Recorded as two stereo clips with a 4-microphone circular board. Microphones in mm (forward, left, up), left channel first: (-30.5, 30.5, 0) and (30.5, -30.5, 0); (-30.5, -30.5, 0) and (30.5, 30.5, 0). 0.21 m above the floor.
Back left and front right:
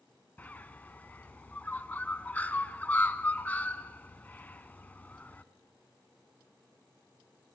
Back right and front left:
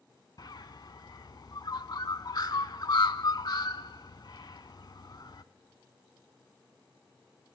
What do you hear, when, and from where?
0.4 s a bird: 155° right, 0.6 m